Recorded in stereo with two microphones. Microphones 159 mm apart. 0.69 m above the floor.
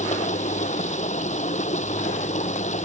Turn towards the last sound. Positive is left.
turn(degrees=45)  # may be behind; listen again after turning